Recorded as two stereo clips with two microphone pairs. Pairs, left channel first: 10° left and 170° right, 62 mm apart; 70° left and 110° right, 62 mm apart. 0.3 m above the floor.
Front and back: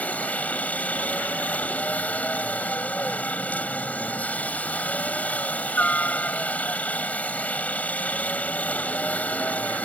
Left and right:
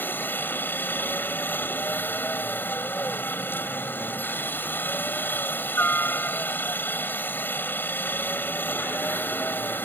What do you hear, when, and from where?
0.0 s a helicopter: 50° left